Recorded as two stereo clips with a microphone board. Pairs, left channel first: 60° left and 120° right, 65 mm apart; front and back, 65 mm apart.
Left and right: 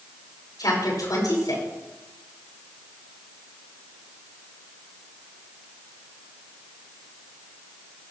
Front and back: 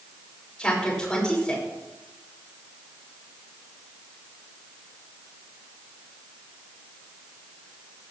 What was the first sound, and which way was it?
A woman speaking, 75° left.